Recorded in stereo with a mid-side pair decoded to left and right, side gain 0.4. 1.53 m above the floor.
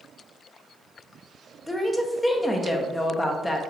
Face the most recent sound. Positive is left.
turn(degrees=20)